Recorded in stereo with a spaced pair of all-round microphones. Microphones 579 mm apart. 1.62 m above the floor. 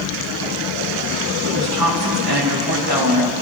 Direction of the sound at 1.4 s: 40° right (ahead or behind).